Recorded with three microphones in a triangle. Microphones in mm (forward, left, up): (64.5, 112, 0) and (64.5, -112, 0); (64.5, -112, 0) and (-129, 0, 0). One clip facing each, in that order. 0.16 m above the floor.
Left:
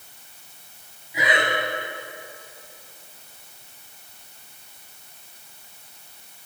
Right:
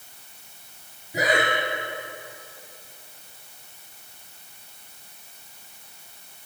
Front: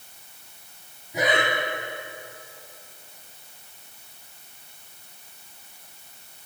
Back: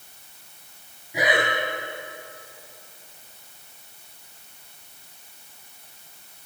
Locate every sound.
1.1 s breathing: 125° right, 3 m